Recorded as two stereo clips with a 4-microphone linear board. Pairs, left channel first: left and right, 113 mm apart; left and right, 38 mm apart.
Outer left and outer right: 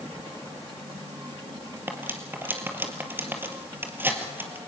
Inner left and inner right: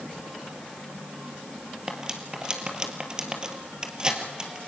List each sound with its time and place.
1.9 s cutlery clinking: 15° right (ahead or behind), 2.5 m